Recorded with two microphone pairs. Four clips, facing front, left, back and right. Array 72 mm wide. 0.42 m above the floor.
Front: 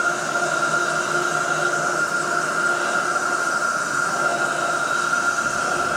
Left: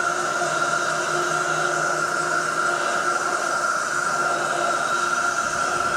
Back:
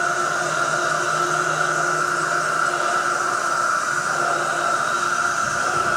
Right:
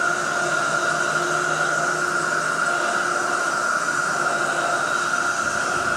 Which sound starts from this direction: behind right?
An insect, at 0.0 s.